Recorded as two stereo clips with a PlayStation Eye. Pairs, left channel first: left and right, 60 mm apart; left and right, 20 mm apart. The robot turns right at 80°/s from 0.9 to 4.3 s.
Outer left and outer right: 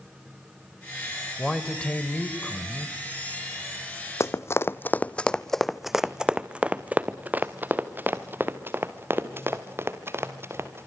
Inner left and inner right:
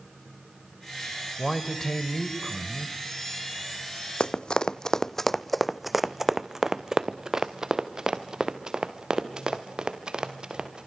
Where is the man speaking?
5° left (ahead or behind), 1.6 m; by 3.0 s 20° left (ahead or behind), 1.6 m.